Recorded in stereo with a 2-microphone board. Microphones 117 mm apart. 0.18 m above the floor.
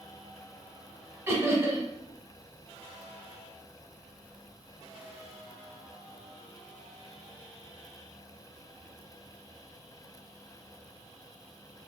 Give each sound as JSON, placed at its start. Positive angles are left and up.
{"t": 1.3, "sound": "laughter", "side_deg": -25, "distance_m": 1.2}